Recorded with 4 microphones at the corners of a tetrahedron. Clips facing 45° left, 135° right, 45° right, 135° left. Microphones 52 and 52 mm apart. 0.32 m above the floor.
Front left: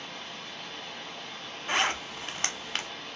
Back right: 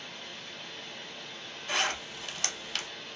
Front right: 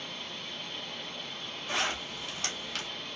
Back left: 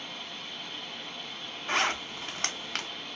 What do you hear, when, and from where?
0.0 s running water: 55° left, 0.9 m
1.7 s a zipper: 100° left, 0.6 m